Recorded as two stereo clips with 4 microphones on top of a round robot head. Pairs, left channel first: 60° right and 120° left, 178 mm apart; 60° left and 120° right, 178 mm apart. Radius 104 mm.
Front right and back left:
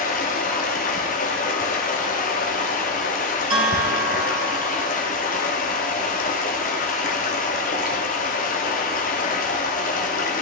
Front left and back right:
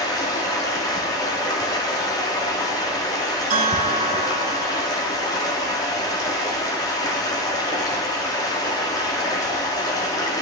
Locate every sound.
0.0 s running water: 15° right, 0.9 m
3.5 s a bell: 175° right, 1.4 m